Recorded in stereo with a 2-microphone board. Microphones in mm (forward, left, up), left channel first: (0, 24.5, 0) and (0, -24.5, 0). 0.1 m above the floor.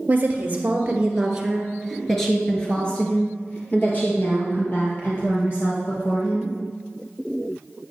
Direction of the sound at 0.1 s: 35° right (ahead or behind).